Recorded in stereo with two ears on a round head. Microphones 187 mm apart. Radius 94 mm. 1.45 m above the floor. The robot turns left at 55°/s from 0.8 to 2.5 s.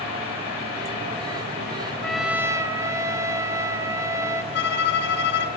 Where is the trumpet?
5° left (ahead or behind), 1.5 m; by 4.4 s 15° right (ahead or behind), 1.5 m.